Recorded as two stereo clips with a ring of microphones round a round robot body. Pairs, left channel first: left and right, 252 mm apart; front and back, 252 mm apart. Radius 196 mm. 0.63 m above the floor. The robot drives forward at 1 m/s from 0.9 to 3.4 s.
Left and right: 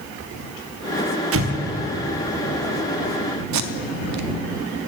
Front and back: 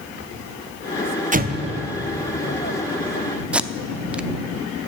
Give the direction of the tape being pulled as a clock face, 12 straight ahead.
3 o'clock.